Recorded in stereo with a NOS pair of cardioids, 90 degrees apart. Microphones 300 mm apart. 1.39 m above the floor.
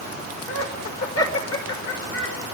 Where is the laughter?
55° left, 5.5 m; by 2.4 s 45° left, 5.5 m.